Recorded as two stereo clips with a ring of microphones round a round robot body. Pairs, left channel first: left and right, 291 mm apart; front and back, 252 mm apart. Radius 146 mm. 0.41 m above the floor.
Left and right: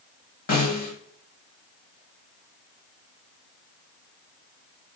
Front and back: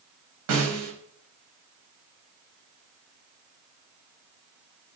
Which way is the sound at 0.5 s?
150° left.